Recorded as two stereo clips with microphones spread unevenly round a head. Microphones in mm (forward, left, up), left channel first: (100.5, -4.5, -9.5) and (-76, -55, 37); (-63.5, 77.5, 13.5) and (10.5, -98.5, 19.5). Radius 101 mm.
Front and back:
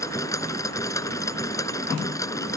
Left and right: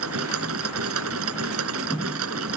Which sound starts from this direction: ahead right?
A machine running, at 0.0 s.